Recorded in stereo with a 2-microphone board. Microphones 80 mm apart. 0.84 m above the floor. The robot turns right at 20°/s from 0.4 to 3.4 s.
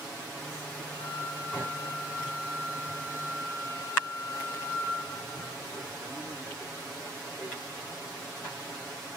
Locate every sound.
0.9 s a flute: 90° left, 3.5 m; by 5.0 s 140° left, 3.5 m